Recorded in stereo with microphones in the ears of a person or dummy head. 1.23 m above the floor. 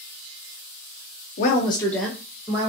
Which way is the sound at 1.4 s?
45° left (ahead or behind).